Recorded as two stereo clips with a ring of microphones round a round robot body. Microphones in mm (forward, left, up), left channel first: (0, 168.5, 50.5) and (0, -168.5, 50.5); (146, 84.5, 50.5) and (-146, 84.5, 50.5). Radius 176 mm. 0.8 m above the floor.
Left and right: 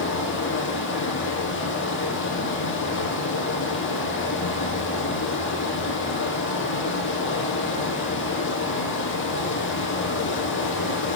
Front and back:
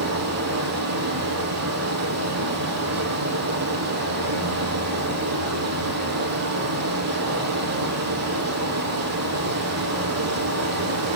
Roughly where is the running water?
Behind left.